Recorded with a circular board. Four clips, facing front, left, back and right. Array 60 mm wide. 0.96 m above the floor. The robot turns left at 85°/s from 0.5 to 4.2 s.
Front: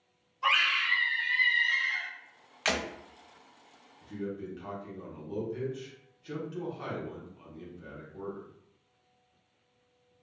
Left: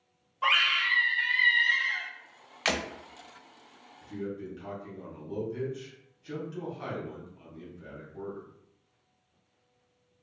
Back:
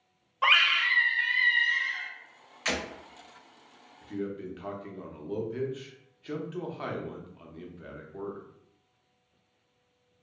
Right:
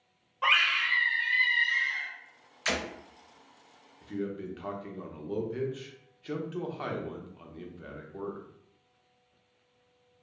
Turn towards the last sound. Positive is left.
turn(degrees=-125)